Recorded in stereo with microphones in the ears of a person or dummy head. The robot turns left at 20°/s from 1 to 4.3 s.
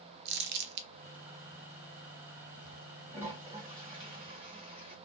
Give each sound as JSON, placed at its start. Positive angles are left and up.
{"t": 0.2, "sound": "crumpling", "side_deg": -65, "distance_m": 0.5}
{"t": 3.1, "sound": "a toilet flushing", "side_deg": -10, "distance_m": 1.1}